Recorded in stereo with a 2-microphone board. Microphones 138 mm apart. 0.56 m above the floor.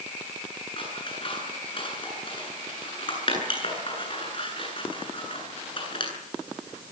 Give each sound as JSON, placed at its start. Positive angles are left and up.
{"t": 0.8, "sound": "scissors", "side_deg": 40, "distance_m": 8.5}